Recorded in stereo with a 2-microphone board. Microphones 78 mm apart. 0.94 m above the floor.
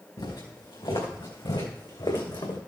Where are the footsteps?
75° left (ahead or behind), 4 m; by 2.6 s 70° left (ahead or behind), 3 m.